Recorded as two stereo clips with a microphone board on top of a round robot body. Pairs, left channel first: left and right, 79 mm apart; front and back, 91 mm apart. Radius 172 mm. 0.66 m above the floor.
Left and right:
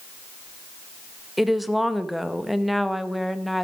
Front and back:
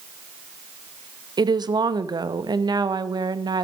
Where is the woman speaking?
Straight behind, 0.9 m.